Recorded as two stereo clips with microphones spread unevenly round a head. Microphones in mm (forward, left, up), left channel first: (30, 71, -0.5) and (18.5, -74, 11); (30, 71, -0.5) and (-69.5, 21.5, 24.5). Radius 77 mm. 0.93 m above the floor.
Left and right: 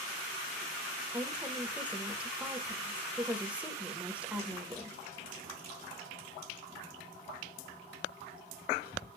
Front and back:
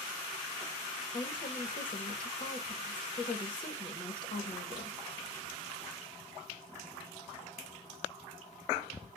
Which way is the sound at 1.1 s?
10° right.